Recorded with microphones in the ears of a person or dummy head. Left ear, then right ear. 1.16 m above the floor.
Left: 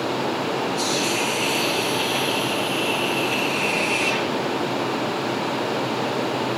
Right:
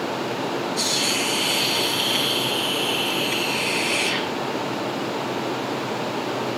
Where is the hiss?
30° right (ahead or behind), 4 m.